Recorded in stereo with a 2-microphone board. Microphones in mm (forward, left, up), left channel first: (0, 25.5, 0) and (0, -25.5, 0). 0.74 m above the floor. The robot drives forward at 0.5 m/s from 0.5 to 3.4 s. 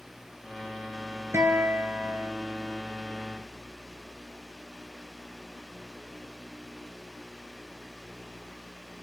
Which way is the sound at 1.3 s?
80° right.